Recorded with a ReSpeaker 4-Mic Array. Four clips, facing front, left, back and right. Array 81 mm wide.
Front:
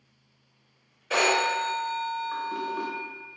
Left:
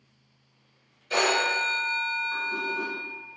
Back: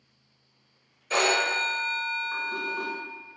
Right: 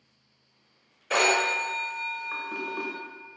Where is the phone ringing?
65° right, 0.8 m.